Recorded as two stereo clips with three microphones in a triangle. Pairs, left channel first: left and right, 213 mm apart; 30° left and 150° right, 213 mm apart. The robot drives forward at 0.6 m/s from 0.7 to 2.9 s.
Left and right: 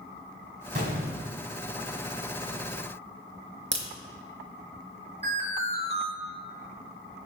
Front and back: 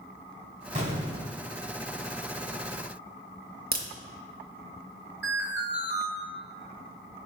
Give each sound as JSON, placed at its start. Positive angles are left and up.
{"t": 0.8, "sound": "an explosion", "azimuth_deg": -110, "distance_m": 1.2}
{"t": 3.7, "sound": "a crack", "azimuth_deg": -110, "distance_m": 0.7}
{"t": 5.2, "sound": "an alarm", "azimuth_deg": -140, "distance_m": 1.2}